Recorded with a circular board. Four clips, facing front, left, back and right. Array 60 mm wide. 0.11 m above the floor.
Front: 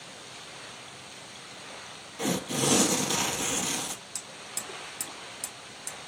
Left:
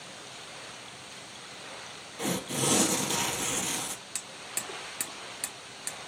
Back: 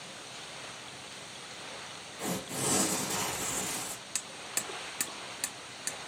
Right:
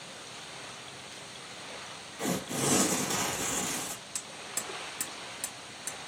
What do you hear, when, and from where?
2.2 s tearing paper: 25° left, 1.3 m
4.2 s hammering: 155° left, 0.8 m